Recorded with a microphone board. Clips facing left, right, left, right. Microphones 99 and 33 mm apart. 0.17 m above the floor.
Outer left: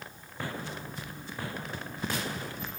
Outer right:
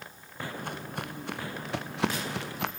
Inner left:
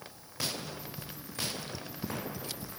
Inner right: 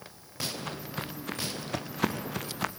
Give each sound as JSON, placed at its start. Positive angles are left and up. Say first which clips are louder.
{"t": 0.6, "sound": "footsteps", "louder": "outer right 3 dB, inner right 6 dB", "side_deg": -55, "distance_m": 2.5}